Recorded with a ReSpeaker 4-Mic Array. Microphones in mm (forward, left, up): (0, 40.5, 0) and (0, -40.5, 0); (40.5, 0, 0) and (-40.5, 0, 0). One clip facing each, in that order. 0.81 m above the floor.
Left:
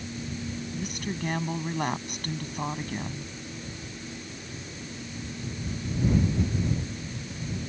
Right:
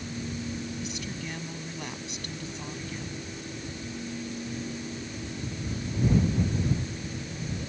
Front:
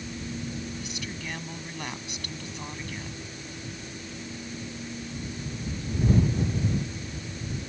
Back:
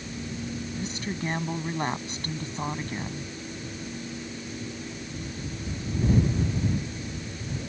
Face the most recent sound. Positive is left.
turn(degrees=125)